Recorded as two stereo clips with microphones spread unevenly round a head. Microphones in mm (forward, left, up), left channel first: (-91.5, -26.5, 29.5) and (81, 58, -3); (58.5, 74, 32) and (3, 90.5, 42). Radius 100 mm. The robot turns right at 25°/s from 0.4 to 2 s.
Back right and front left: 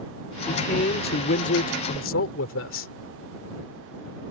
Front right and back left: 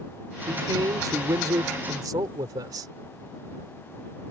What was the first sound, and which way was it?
A man speaking, 150° left.